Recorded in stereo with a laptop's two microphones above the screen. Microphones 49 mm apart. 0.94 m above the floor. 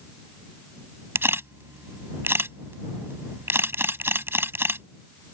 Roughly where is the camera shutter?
Right.